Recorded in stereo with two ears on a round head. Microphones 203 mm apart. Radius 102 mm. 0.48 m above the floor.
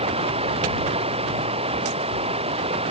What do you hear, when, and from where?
0.0 s running water: 25° right (ahead or behind)